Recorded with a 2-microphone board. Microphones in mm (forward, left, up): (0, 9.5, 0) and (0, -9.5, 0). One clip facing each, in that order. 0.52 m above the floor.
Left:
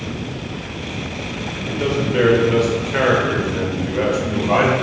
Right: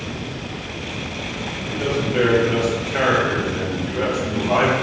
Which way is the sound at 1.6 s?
40° left (ahead or behind).